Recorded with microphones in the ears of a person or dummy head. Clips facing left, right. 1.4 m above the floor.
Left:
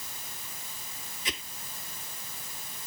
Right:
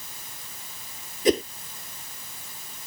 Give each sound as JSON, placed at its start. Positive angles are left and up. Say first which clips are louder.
{"t": 1.2, "sound": "a whoosh", "louder": "right 21 dB", "side_deg": -40}